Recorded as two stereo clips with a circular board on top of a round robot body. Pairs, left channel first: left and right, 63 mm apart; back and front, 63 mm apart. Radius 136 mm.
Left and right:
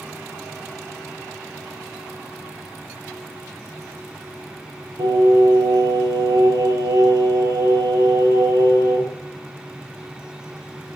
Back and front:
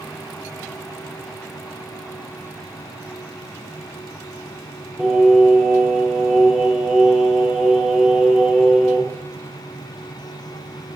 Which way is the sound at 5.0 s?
90° right.